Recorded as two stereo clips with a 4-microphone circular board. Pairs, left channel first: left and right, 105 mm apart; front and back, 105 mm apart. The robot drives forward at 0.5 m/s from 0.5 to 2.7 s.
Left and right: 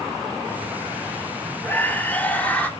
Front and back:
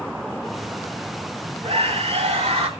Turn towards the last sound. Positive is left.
turn(degrees=165)